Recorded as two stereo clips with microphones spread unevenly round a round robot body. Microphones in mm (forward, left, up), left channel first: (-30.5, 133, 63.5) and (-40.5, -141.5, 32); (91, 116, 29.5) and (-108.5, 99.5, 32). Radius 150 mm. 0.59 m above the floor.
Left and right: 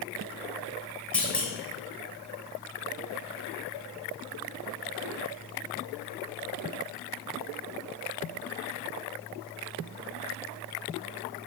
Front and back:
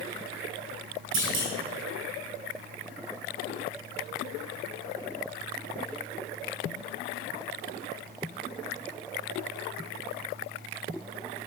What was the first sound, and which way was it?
A clunk, 175° left.